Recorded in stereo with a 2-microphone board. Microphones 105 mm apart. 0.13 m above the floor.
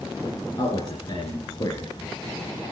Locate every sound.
0.6 s a man speaking: 45° left (ahead or behind), 2.5 m